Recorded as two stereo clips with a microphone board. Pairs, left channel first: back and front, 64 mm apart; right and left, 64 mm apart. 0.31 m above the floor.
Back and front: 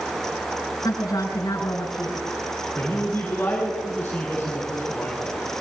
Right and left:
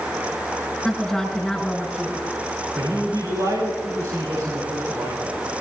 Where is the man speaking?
115° left, 8.5 m.